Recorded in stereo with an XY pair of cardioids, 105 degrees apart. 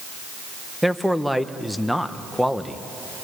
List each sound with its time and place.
0.8 s a man speaking: straight ahead, 1.2 m